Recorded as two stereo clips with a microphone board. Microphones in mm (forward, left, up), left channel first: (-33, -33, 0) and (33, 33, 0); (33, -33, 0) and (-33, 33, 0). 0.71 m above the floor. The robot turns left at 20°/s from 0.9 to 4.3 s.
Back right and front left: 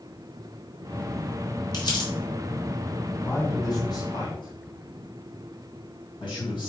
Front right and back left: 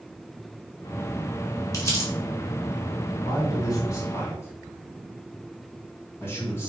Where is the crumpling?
95° right, 2.5 m; by 2.1 s 105° right, 2.5 m.